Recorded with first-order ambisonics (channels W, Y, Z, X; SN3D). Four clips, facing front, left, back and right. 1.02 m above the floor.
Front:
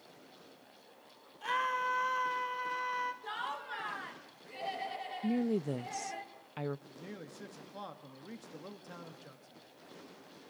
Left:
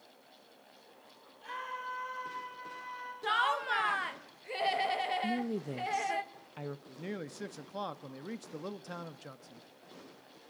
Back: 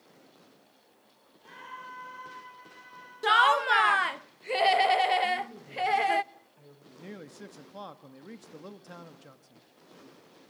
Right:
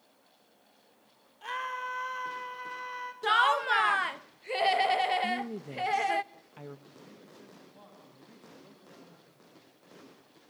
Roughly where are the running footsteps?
I don't hear running footsteps.